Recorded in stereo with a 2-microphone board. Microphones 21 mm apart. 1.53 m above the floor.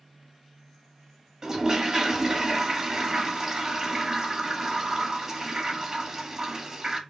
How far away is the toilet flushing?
About 0.7 m.